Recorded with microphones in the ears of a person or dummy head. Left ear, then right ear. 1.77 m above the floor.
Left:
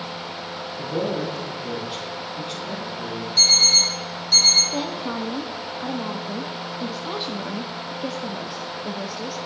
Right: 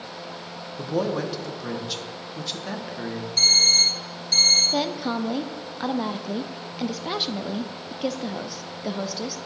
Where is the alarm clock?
5° left (ahead or behind), 1.9 m.